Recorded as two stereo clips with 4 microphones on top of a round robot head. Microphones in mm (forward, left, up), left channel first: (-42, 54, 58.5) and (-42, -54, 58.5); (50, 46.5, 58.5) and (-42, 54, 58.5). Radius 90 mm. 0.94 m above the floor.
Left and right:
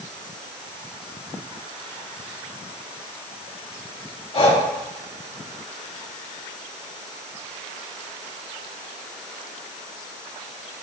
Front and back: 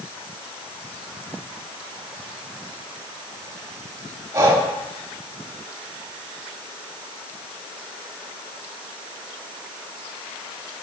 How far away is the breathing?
About 1.9 m.